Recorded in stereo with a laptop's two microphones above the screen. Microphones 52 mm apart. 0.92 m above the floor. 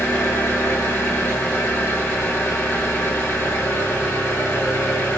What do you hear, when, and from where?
0.0 s an engine running: 75° left (ahead or behind), 1.5 m